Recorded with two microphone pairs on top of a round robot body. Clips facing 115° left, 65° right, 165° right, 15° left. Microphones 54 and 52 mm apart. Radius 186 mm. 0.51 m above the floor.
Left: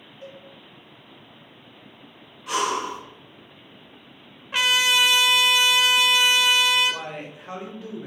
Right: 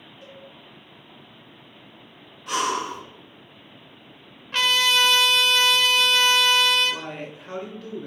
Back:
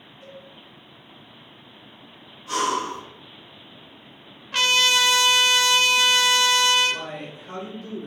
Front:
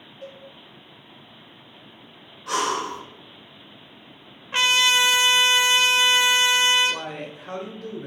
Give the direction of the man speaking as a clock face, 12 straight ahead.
11 o'clock.